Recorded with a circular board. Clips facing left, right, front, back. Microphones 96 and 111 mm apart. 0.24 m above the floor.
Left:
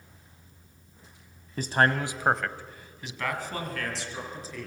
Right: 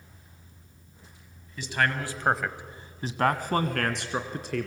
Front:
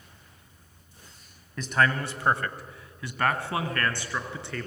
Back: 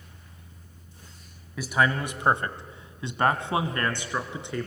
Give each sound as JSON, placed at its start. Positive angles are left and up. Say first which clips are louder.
{"t": 1.6, "sound": "a man speaking", "louder": "left 4 dB, even", "azimuth_deg": 100, "distance_m": 1.4}